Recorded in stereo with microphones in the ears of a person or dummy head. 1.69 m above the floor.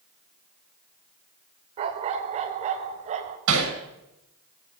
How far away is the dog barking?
About 2 m.